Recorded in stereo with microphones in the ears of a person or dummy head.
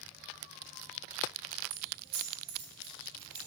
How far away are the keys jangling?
About 1.3 m.